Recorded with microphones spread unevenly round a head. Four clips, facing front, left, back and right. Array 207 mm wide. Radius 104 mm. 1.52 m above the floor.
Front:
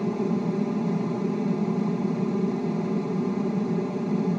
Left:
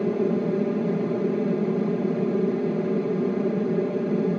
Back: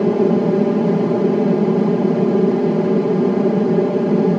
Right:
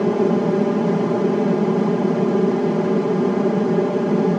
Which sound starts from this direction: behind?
An aircraft, at 0.0 s.